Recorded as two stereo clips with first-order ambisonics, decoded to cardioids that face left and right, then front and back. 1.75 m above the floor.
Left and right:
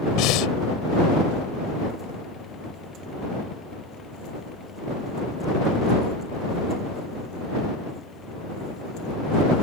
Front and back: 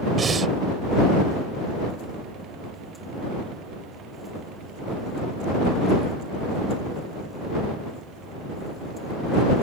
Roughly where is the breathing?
Behind left.